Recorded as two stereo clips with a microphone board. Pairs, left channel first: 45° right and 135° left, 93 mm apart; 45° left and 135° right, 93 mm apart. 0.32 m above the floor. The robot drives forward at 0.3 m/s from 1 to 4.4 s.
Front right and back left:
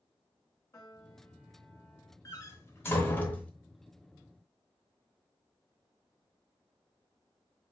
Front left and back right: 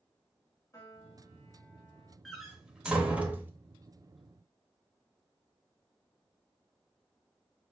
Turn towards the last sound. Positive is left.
turn(degrees=-130)